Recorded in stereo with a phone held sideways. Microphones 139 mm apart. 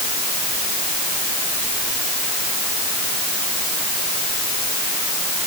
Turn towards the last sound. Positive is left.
No sound to turn to.